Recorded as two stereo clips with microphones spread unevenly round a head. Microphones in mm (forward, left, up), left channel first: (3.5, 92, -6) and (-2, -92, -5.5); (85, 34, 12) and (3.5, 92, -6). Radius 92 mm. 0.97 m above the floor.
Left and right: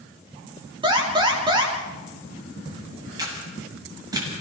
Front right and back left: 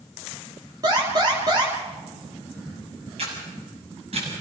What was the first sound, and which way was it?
An alarm, 155° right.